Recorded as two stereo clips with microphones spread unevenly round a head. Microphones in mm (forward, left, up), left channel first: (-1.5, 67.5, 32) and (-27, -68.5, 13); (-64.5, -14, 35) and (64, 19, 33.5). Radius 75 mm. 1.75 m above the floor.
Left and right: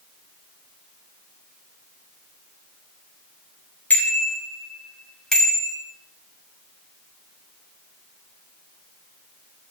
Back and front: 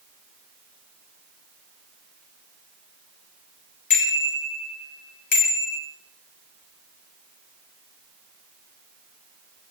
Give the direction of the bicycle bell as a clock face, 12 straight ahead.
7 o'clock.